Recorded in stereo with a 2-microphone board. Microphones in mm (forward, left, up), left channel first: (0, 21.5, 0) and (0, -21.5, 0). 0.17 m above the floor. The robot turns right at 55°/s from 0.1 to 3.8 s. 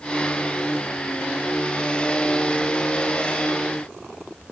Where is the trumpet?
No trumpet in this recording.